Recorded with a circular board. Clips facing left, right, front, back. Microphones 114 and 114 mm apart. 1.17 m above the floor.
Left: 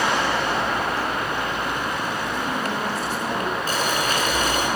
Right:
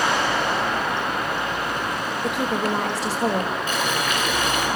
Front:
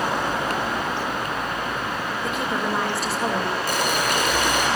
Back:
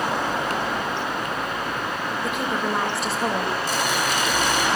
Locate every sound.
2.2 s a woman speaking: 90° right, 4.5 m
3.7 s boiling: 35° left, 6 m